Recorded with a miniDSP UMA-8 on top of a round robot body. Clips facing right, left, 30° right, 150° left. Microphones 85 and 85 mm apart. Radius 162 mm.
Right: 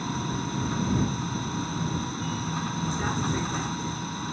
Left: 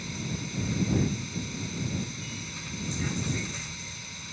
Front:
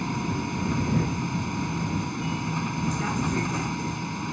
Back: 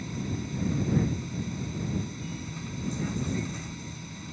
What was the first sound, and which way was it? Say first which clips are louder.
A vehicle: right 6 dB, front 6 dB; 45° right.